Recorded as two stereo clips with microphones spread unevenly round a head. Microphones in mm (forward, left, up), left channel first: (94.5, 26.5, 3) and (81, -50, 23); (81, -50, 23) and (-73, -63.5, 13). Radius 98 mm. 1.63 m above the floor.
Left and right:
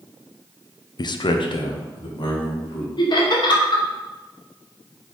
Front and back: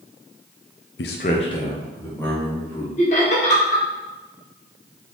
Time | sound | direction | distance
1.0 | a man speaking | 40° left | 0.6 m
3.0 | laughter | 65° left | 1.7 m